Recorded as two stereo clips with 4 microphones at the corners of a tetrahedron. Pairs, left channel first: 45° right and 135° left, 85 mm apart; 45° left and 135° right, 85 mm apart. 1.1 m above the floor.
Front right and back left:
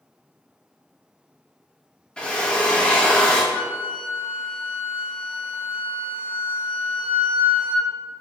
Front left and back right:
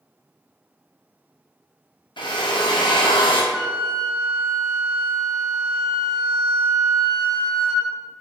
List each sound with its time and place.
2.2 s a drill: 35° left, 0.8 m
3.5 s a flute: 55° right, 1.4 m